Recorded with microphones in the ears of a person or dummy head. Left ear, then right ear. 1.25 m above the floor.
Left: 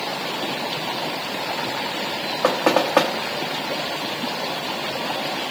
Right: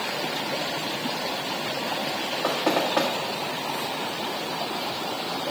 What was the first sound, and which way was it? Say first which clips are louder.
Knocking: left 6 dB; 30° left (ahead or behind).